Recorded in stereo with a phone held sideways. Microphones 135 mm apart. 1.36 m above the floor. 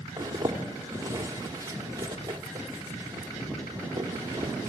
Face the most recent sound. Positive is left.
turn(degrees=-30)  # may be behind; listen again after turning